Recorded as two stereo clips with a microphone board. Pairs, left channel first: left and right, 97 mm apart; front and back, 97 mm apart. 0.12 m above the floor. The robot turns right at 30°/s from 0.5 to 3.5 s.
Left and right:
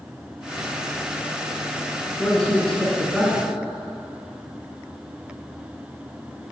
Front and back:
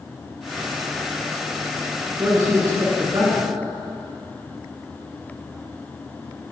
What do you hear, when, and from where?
2.2 s a man speaking: 150° left, 1.9 m; by 3.5 s 175° right, 1.9 m